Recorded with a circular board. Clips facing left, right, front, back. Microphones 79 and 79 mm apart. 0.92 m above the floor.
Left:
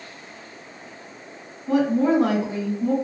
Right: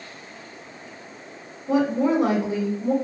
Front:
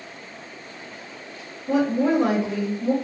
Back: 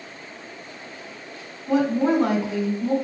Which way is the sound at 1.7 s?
95° left.